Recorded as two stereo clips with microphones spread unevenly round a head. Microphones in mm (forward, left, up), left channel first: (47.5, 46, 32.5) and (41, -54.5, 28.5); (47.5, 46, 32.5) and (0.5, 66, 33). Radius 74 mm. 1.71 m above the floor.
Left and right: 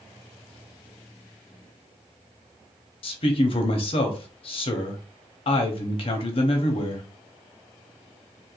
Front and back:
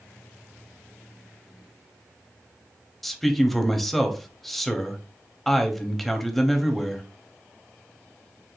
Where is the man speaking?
65° left, 0.7 m.